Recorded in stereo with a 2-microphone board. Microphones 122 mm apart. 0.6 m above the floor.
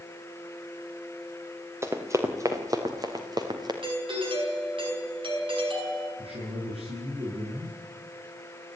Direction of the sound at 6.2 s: 55° right (ahead or behind).